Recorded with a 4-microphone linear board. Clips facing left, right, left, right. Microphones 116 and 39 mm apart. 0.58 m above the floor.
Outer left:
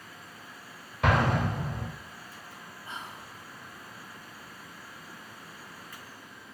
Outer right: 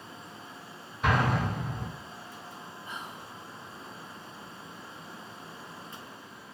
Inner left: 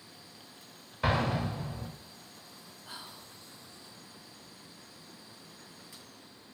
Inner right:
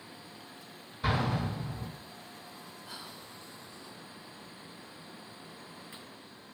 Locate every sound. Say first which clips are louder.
1.0 s an explosion: outer left 1 dB, inner left 1 dB; 75° left (ahead or behind), 1.2 m
2.9 s whispering: outer left 1 dB, inner left 1 dB; 25° left (ahead or behind), 0.8 m